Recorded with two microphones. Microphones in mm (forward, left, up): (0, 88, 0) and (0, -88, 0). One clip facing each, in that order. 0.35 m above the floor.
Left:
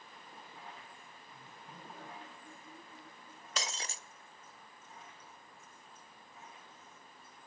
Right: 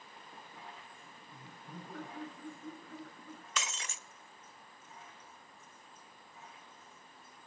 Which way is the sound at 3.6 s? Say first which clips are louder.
Left 1 dB; 35° left (ahead or behind).